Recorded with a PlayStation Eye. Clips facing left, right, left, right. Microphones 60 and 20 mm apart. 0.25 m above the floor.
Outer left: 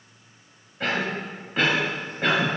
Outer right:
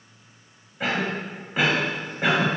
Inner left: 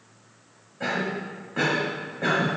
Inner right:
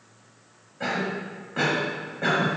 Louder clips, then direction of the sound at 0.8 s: Even, even; 10° right (ahead or behind).